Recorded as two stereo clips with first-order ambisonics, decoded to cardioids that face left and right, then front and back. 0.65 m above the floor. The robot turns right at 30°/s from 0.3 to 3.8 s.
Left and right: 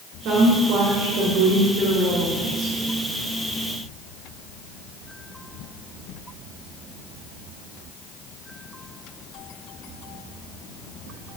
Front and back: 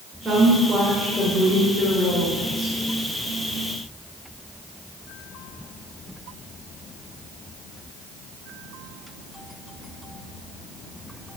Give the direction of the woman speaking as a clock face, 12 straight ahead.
4 o'clock.